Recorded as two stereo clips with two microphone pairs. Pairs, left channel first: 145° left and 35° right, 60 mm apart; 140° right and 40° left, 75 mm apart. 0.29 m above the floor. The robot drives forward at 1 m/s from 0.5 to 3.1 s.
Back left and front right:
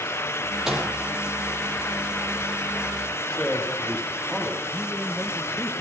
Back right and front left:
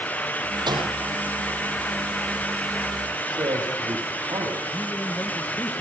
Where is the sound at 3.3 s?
60° left, 9.5 m.